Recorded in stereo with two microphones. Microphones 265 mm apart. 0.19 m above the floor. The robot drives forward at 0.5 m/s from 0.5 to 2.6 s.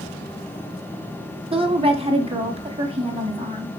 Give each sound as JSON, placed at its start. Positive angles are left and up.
{"t": 1.5, "sound": "a woman speaking", "side_deg": -20, "distance_m": 1.2}